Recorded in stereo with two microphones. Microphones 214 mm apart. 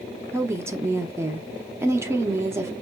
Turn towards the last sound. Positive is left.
turn(degrees=-10)  # may be behind; listen again after turning